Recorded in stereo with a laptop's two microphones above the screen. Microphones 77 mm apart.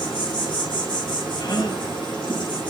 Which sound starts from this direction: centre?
An insect, at 0.0 s.